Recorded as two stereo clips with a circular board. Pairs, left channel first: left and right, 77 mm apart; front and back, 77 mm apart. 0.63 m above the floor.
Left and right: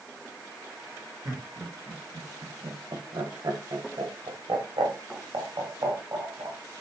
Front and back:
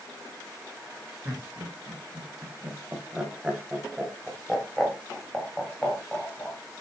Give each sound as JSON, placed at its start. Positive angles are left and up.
{"t": 1.2, "sound": "laughter", "azimuth_deg": -120, "distance_m": 3.0}